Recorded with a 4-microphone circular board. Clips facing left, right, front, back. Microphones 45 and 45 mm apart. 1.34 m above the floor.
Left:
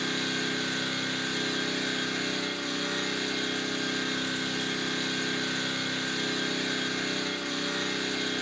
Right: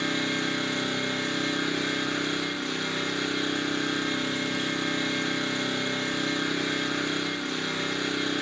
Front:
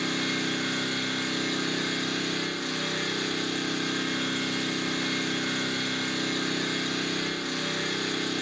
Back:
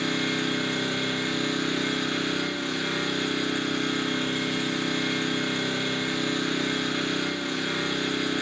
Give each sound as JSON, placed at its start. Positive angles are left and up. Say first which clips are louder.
{"t": 0.0, "sound": "an engine running", "louder": "right 3 dB, back 2 dB", "azimuth_deg": -130, "distance_m": 2.5}